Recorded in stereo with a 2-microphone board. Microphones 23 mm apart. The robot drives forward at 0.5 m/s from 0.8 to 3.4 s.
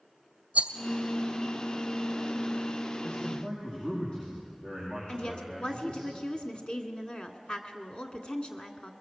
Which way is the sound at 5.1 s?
50° left (ahead or behind).